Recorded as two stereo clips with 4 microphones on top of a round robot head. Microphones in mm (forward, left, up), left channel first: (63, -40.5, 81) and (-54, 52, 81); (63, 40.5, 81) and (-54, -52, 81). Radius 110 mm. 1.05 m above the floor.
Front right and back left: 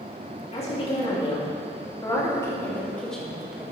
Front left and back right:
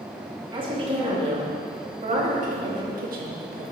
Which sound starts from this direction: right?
A woman speaking, at 0.5 s.